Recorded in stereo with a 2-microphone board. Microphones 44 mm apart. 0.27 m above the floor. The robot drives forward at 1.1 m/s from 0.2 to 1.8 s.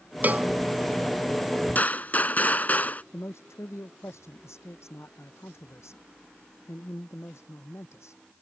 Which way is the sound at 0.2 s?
40° right (ahead or behind).